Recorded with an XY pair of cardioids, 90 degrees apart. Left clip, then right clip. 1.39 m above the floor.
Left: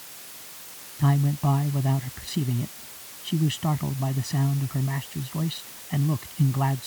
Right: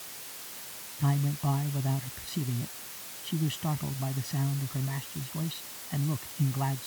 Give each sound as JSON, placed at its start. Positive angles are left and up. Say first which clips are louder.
{"t": 1.0, "sound": "a man speaking", "louder": "left 6 dB", "azimuth_deg": 40}